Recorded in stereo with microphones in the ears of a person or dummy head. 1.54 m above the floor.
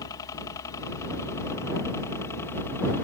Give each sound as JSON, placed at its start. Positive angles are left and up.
{"t": 0.0, "sound": "a helicopter", "side_deg": 25}